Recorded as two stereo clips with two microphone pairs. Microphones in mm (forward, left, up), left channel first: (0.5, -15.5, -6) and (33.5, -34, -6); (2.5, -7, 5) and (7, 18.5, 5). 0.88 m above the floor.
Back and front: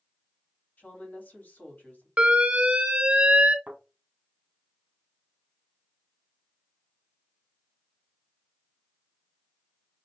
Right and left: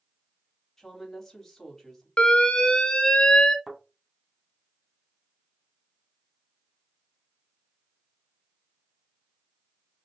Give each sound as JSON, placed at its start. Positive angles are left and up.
{"t": 0.8, "sound": "a woman speaking", "azimuth_deg": -175, "distance_m": 2.5}
{"t": 2.2, "sound": "an alarm", "azimuth_deg": -60, "distance_m": 0.6}
{"t": 3.7, "sound": "a thud", "azimuth_deg": 10, "distance_m": 1.8}